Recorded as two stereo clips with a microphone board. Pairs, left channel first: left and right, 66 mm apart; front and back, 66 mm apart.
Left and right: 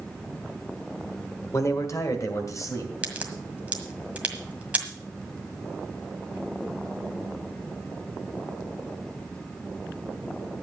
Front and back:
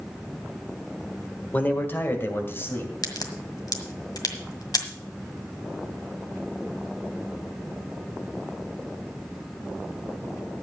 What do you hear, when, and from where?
1.5 s a man speaking: 55° left, 1.4 m; by 2.9 s 50° left, 3 m
3.0 s a crack: 20° right, 1.7 m